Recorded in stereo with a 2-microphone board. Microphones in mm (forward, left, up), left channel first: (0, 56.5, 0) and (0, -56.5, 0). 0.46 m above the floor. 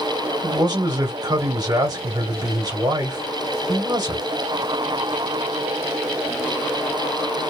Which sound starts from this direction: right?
A man speaking, at 0.4 s.